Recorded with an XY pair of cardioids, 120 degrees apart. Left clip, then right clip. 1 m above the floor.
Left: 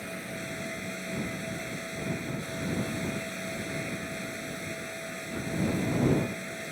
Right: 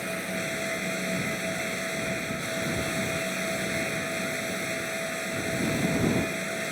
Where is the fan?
45° right.